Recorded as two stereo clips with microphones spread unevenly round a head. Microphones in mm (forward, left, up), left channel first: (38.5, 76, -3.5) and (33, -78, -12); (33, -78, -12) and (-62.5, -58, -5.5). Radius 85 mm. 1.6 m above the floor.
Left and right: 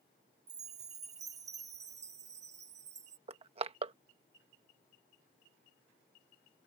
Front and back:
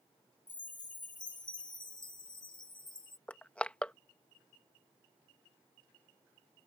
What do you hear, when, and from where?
0.5 s a chime: 50° right
3.3 s crushing: 85° right